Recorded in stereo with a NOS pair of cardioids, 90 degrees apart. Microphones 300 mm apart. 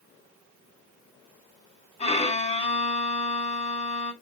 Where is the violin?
20° left, 5 m.